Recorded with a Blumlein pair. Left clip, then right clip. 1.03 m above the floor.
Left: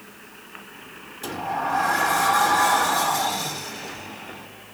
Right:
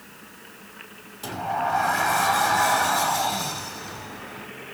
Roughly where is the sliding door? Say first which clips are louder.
Even; ahead.